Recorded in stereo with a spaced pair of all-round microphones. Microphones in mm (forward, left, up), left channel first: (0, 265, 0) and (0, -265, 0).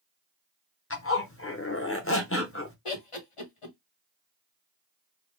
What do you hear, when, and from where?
0.9 s a zipper: 25° left (ahead or behind), 0.7 m
2.9 s laughter: 80° left, 1.1 m